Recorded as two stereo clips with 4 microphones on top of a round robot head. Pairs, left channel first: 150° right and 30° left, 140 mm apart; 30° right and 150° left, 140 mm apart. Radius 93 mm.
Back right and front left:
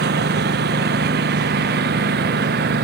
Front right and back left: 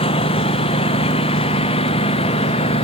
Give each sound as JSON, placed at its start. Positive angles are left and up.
{"t": 0.0, "sound": "a lawn mower", "azimuth_deg": 25}